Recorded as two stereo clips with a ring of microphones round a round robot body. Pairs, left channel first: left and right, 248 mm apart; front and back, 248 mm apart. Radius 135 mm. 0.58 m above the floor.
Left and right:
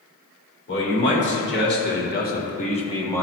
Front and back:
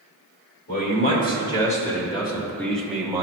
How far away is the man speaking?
About 2 m.